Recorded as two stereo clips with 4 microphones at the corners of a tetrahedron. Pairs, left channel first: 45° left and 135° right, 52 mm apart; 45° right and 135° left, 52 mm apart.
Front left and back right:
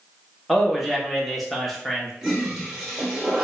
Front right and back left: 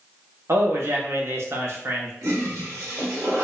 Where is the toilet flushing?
140° left, 0.9 m.